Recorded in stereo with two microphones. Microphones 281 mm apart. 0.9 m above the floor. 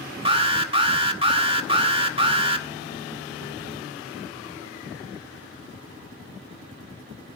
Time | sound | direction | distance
0.2 | an alarm | 20° right (ahead or behind) | 1.9 m